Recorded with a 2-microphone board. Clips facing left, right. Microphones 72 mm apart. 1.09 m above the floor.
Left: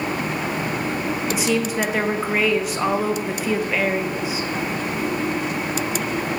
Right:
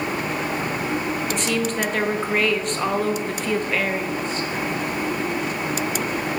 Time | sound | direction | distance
1.3 | a woman speaking | 5° left (ahead or behind) | 0.6 m